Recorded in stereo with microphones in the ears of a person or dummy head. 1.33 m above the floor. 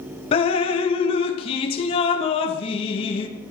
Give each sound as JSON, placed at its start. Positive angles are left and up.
{"t": 0.3, "sound": "dripping", "side_deg": 30, "distance_m": 0.5}